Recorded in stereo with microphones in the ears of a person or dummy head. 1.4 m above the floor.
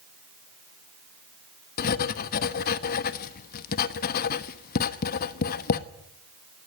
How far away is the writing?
About 1.1 m.